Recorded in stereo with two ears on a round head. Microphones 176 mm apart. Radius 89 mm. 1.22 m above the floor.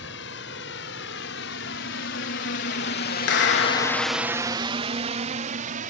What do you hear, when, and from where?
0.0 s a drone: 60° left (ahead or behind); by 5.9 s 45° right (ahead or behind)
3.3 s a clap: 65° left (ahead or behind)